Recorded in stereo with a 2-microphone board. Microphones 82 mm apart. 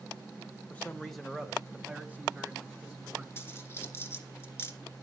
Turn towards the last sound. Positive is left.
turn(degrees=30)  # may be behind; listen again after turning